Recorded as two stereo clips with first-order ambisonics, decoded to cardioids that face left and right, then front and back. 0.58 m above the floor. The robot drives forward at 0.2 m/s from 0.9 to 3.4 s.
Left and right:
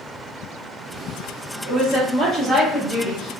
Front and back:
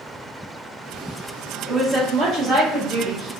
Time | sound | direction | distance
1.6 | a woman speaking | 165° left | 1.0 m